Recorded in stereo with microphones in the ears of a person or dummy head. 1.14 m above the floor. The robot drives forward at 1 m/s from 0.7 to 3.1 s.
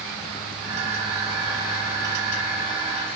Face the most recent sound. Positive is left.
No sound to turn to.